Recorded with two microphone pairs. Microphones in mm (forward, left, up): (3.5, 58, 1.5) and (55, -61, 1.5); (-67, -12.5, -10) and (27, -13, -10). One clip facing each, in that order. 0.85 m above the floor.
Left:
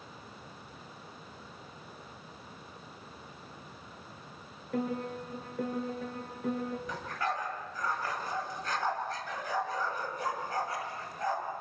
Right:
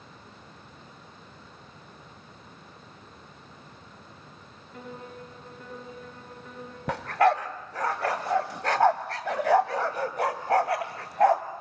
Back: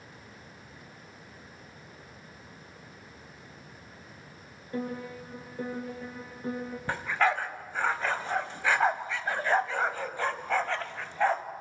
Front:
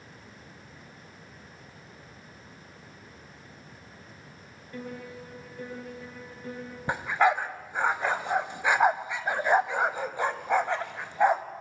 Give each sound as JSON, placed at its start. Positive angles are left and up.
{"t": 4.7, "sound": "a piano", "azimuth_deg": 120, "distance_m": 5.0}
{"t": 6.9, "sound": "a dog barking", "azimuth_deg": -75, "distance_m": 1.5}